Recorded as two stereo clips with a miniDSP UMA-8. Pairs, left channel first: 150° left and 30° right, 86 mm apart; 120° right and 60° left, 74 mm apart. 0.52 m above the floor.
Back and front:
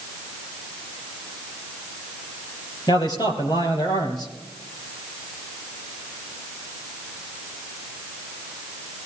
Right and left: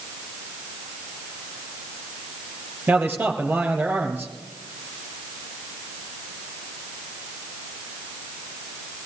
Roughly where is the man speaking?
Behind left.